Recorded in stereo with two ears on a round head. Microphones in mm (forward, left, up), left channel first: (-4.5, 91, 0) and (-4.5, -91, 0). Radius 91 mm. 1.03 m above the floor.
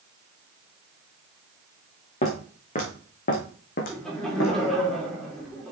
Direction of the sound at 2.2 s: 35° left (ahead or behind).